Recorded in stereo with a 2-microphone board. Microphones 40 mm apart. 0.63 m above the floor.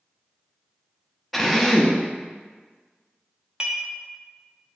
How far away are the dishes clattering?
About 0.5 m.